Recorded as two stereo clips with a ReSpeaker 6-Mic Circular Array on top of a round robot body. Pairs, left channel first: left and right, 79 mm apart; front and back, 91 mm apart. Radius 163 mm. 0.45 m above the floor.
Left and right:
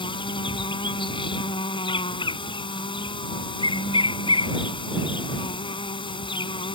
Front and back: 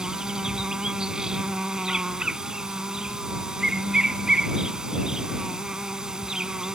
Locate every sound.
0.0 s an insect: 95° left